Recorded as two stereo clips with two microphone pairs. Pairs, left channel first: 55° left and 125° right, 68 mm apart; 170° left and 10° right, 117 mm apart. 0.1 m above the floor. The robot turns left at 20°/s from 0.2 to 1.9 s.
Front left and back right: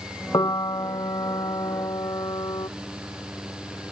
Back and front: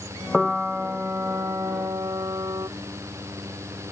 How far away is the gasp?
No gasp in this recording.